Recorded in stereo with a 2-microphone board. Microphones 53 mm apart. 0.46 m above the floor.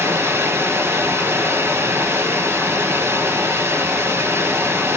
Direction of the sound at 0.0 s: 50° right (ahead or behind).